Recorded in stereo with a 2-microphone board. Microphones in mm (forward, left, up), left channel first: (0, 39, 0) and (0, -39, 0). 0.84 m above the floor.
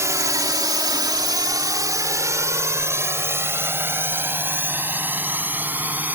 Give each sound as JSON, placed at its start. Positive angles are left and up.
{"t": 0.0, "sound": "a drone", "side_deg": -40}